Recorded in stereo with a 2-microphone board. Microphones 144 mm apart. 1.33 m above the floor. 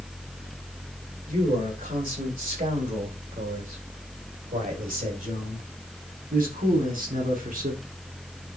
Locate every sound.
1.3 s a man speaking: 75° right (ahead or behind), 5.5 m